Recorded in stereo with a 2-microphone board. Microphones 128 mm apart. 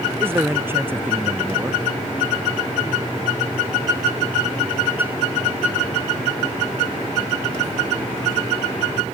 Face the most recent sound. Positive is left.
turn(degrees=-15)  # may be behind; listen again after turning